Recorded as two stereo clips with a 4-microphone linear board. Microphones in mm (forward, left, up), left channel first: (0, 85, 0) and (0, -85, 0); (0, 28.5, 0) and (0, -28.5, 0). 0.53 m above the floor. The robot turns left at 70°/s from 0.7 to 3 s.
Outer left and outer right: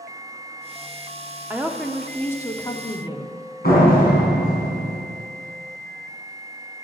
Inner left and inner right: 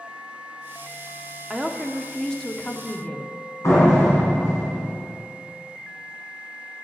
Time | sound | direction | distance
1.5 | a woman speaking | 10° right (ahead or behind) | 0.8 m
3.6 | a door slam | 65° left (ahead or behind) | 4 m